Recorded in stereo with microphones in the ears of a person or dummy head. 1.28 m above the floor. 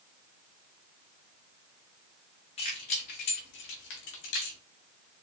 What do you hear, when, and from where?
2.6 s keys jangling: 25° left (ahead or behind), 1.6 m; by 4.6 s 70° left (ahead or behind), 1.9 m